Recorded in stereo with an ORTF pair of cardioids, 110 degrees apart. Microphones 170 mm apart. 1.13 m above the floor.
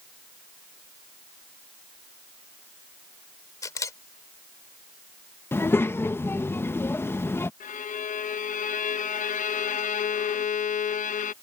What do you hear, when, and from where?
3.6 s a camera shutter: 20° left
5.5 s a child speaking: 15° left
7.6 s a violin: 50° left